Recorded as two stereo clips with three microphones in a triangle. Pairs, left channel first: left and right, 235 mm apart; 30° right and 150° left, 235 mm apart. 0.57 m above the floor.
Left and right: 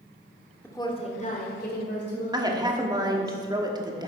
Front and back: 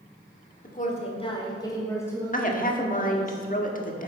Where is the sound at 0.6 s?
10° left, 1.5 m; by 3.3 s 55° left, 4.5 m.